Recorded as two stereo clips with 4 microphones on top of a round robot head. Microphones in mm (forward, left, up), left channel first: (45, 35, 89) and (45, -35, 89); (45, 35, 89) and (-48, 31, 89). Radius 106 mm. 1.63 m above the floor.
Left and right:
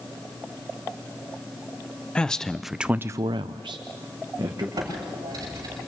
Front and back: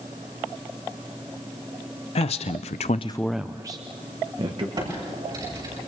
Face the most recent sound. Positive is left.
turn(degrees=-130)